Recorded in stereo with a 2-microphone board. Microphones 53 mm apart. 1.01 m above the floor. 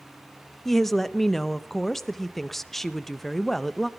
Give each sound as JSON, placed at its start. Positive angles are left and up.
{"t": 0.7, "sound": "a woman speaking", "side_deg": 5, "distance_m": 0.7}